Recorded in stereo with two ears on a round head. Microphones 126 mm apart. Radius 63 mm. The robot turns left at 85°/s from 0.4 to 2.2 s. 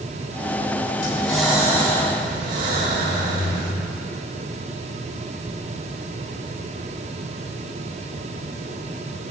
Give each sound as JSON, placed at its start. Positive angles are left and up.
{"t": 1.0, "sound": "breathing", "azimuth_deg": 35, "distance_m": 1.4}